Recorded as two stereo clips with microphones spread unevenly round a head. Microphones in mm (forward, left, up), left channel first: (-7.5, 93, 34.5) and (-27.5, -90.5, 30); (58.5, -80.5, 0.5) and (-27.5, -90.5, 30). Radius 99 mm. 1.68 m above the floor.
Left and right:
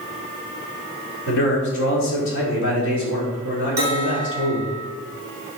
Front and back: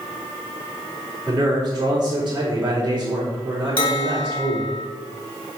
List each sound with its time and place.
1.3 s a man speaking: 105° left, 4 m
3.8 s a bell: 20° right, 3 m